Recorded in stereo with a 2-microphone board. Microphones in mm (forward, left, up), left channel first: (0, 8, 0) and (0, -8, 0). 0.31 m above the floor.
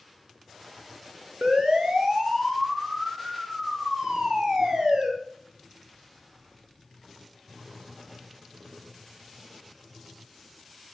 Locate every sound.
1.4 s a siren: 70° right (ahead or behind), 3.5 m; by 5.1 s 55° right (ahead or behind), 5.5 m